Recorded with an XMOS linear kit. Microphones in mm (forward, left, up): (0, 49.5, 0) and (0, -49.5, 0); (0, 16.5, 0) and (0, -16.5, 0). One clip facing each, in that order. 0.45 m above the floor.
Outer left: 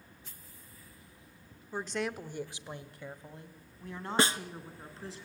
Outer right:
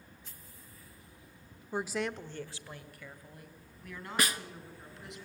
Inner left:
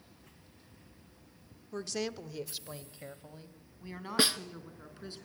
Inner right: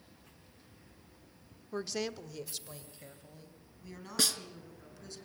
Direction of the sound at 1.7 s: 15° right (ahead or behind).